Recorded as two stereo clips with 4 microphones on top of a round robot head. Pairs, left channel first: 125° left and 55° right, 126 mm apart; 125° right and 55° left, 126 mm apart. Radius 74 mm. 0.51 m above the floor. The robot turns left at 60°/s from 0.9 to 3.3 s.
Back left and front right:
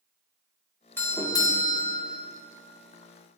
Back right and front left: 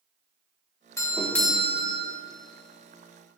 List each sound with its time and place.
1.0 s a doorbell: 175° right, 1.7 m; by 2.1 s 120° left, 1.7 m